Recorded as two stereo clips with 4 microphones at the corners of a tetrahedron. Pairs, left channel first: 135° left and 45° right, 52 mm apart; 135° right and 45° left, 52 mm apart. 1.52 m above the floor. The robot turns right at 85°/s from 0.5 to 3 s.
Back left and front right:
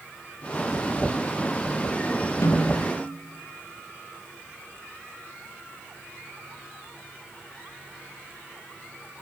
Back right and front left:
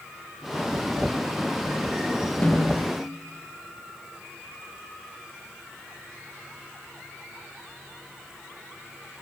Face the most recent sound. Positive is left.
turn(degrees=-160)